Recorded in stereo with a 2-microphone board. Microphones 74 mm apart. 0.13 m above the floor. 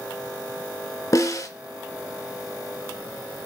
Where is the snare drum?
50° left (ahead or behind), 0.6 m.